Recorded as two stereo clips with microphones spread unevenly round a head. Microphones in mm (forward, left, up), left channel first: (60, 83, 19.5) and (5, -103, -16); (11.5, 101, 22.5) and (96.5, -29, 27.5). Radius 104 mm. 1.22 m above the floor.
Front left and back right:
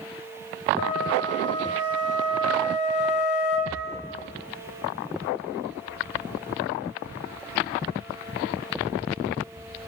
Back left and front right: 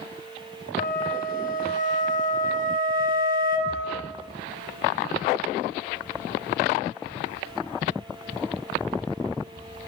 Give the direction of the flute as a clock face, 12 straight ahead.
9 o'clock.